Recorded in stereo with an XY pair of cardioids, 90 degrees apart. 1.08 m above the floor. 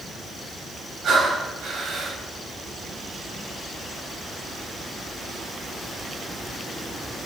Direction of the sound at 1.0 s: 65° right.